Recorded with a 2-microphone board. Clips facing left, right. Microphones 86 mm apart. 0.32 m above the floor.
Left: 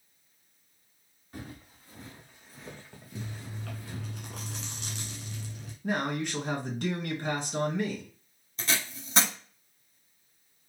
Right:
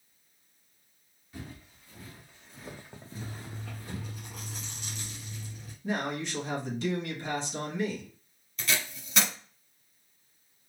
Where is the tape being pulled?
30° left (ahead or behind), 1.1 m.